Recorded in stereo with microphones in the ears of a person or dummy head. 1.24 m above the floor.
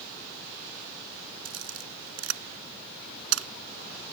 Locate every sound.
1.4 s a camera shutter: 85° right